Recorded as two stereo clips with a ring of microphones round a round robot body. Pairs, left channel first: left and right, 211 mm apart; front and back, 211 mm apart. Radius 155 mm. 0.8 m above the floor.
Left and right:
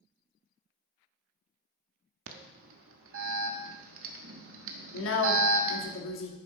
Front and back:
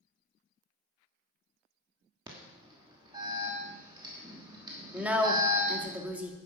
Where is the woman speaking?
100° left, 2 m.